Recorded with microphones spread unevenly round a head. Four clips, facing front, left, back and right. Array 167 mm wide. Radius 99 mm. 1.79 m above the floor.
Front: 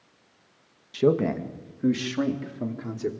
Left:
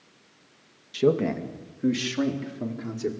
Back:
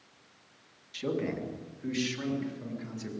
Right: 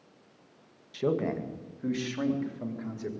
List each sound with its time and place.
0.9 s a man speaking: 30° left, 2 m; by 3.1 s 35° left, 5 m